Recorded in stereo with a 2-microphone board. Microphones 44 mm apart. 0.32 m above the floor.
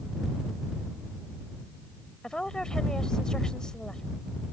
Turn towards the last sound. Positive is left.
turn(degrees=15)  # may be behind; listen again after turning